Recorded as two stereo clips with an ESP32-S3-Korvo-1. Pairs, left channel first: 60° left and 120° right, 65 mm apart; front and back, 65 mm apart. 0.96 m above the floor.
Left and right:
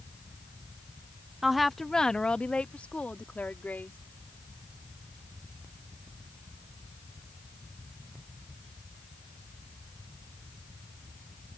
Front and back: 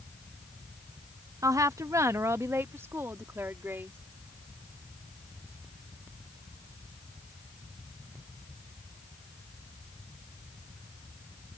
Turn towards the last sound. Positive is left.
turn(degrees=125)